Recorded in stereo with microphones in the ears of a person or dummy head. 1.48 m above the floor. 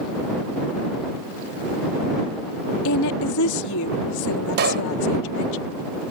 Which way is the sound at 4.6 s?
55° right (ahead or behind).